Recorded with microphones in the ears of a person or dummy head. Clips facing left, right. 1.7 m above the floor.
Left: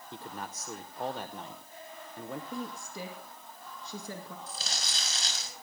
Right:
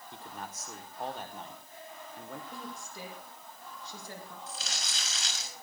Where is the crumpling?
35° left (ahead or behind), 6.5 m.